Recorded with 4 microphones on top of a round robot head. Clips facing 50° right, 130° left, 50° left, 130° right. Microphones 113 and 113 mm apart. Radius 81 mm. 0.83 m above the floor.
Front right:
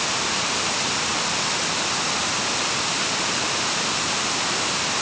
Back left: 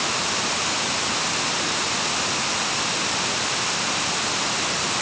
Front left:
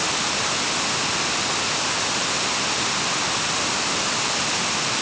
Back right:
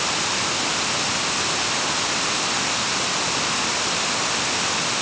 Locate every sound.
Only background noise.